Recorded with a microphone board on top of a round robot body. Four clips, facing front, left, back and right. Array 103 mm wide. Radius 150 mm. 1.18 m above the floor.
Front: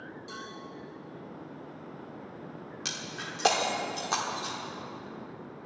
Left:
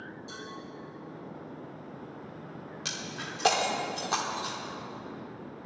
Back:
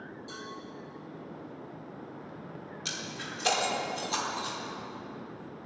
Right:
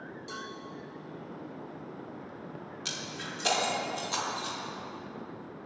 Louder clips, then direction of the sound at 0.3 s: Right 4 dB, even; 60° right.